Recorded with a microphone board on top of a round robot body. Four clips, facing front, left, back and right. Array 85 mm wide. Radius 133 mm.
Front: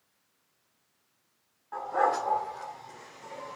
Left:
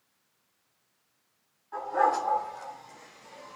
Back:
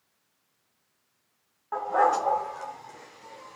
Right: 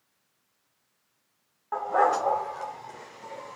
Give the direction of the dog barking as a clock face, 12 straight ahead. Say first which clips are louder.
Right 2 dB, back 4 dB; 4 o'clock.